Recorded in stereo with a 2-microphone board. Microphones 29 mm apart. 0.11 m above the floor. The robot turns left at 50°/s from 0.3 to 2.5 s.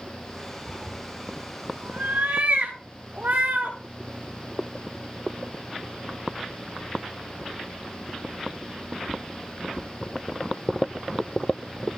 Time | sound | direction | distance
0.7 | a cat meowing | 30° right (ahead or behind) | 6 m